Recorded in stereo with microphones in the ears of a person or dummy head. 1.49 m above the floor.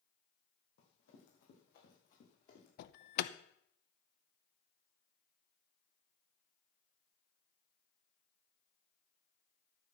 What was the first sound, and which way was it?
Running footsteps, 70° left (ahead or behind).